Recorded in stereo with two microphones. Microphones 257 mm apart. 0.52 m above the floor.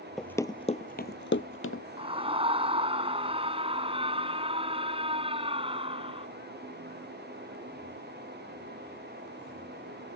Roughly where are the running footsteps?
Centre.